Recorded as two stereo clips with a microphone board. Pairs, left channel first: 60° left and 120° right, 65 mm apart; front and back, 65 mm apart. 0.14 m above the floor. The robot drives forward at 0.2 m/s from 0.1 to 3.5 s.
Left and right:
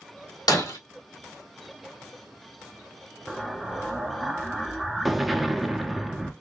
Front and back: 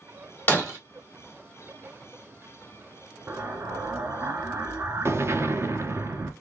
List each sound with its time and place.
0.5 s breaking glass: 60° left, 2 m
3.3 s an explosion: 150° left, 0.7 m